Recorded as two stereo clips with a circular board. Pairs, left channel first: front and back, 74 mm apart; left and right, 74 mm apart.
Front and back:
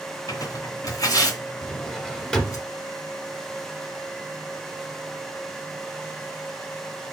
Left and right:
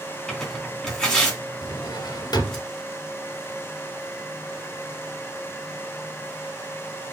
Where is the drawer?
80° left, 2 m.